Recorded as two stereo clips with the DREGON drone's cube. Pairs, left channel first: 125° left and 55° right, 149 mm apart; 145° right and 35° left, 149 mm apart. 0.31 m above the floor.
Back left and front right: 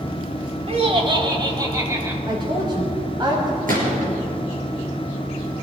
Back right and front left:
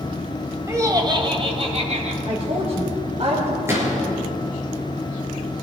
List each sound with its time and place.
0.7 s laughter: 30° right, 1.6 m; by 2.2 s 15° left, 2 m
2.3 s a woman speaking: straight ahead, 1.9 m
3.7 s a gunshot: 35° right, 4.5 m